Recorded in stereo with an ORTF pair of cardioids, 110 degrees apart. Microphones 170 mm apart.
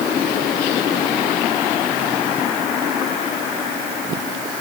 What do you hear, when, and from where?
Only background noise.